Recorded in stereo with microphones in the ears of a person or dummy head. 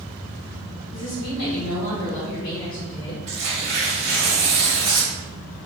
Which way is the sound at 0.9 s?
75° left (ahead or behind).